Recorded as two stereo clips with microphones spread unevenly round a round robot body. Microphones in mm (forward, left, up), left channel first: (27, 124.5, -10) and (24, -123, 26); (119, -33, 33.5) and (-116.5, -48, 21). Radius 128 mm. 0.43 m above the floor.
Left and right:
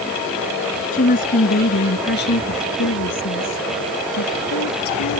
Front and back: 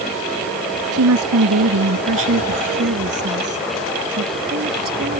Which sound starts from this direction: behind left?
A woman speaking, at 0.9 s.